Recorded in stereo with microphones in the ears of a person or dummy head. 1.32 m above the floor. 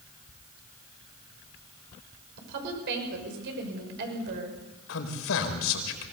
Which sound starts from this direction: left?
A man speaking, at 4.9 s.